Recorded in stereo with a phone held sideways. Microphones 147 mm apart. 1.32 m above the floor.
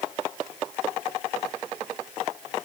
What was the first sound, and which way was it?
Only background noise.